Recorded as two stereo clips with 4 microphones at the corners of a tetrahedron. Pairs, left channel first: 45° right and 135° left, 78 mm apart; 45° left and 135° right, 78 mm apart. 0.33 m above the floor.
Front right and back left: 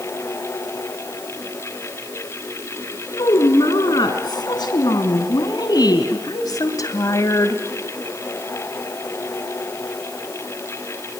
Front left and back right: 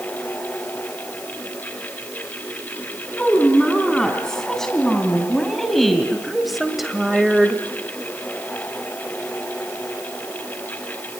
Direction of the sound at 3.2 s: 35° right.